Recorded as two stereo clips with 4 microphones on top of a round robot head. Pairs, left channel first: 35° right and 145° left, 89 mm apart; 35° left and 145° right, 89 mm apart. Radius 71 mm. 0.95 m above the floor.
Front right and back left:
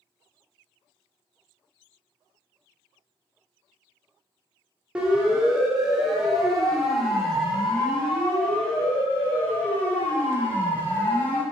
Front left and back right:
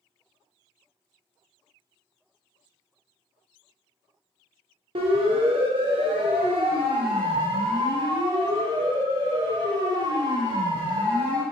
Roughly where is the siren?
Behind right.